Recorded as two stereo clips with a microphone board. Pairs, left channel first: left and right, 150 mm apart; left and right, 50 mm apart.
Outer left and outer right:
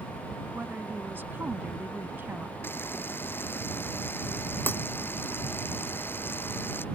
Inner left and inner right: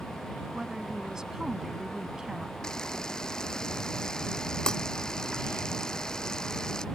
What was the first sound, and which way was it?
A woman speaking, 15° right (ahead or behind).